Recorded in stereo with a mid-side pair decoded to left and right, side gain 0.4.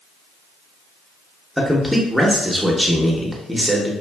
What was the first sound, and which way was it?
A man speaking, 10° right.